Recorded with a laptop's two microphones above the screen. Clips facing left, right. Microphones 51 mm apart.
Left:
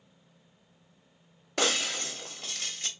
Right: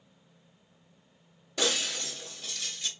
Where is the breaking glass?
60° left (ahead or behind), 1.1 m.